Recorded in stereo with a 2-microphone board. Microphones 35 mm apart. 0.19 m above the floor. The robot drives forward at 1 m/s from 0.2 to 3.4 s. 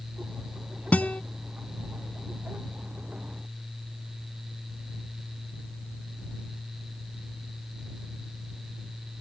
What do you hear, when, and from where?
0.9 s a guitar: 50° left (ahead or behind); by 1.2 s 45° left (ahead or behind)